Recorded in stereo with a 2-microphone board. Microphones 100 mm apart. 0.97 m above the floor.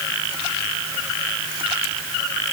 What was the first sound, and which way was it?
Only background noise.